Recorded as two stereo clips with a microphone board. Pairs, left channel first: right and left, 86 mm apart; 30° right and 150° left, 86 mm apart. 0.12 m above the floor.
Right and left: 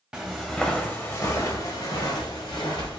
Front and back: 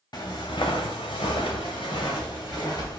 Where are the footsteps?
15° left, 0.8 m; by 3.0 s 75° right, 1.4 m.